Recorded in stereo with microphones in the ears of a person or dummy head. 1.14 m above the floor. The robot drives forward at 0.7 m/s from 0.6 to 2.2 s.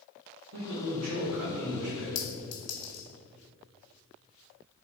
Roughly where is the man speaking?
Right.